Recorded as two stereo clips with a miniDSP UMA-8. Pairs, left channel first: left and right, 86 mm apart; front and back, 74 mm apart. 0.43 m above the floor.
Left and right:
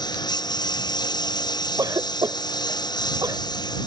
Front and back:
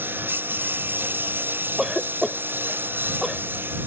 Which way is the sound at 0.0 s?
120° left.